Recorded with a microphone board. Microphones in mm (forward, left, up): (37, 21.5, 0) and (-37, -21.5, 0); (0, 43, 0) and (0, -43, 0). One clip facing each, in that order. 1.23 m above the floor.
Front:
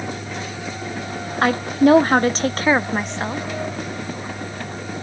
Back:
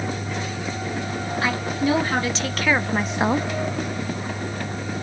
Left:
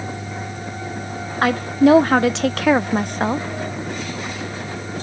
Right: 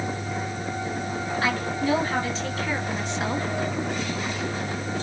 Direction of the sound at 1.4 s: 60° left.